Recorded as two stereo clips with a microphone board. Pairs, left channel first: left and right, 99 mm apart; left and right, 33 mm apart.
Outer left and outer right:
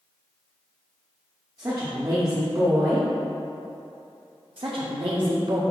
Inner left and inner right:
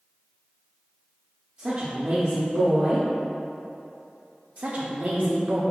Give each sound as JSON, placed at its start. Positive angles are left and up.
{"t": 1.6, "sound": "a woman speaking", "side_deg": -35, "distance_m": 0.7}
{"t": 4.6, "sound": "a woman speaking", "side_deg": -60, "distance_m": 0.6}